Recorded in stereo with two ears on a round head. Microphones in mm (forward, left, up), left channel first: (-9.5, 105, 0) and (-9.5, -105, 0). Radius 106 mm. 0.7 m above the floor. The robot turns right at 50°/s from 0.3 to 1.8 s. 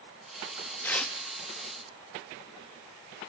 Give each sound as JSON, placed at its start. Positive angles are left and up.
{"t": 0.8, "sound": "tearing paper", "side_deg": 10, "distance_m": 0.6}